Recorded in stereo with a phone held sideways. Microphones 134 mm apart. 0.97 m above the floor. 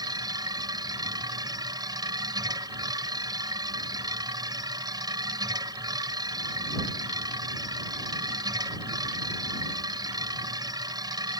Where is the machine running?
30° right (ahead or behind).